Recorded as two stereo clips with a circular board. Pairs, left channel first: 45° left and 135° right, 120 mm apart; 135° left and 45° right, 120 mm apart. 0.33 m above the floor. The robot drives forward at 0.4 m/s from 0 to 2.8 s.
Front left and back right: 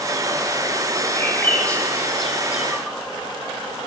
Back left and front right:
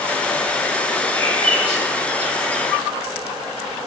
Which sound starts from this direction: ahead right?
A bird, at 1.1 s.